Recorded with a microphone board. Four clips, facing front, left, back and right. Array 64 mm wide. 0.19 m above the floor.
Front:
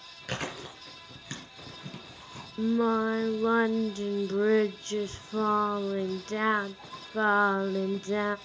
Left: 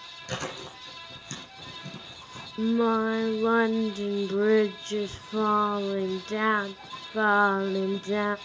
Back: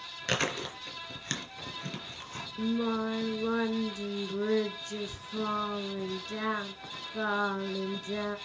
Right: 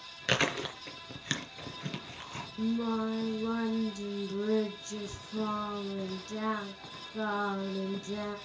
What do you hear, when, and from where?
0.3 s chewing: 110° right, 3 m
2.6 s singing: 60° left, 0.6 m